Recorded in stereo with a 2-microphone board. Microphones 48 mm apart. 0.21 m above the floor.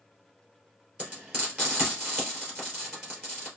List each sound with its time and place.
1.0 s frying: 25° right (ahead or behind), 3.5 m